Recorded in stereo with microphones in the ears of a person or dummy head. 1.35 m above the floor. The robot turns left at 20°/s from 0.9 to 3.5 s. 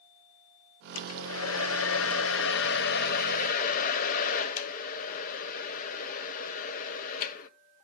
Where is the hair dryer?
90° left, 0.6 m; by 7.5 s 40° left, 0.6 m.